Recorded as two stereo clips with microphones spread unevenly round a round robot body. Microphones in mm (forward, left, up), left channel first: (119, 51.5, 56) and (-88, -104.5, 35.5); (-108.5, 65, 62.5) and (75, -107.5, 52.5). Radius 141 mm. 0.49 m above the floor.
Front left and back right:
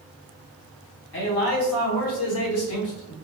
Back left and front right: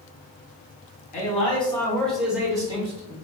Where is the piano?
No piano in this recording.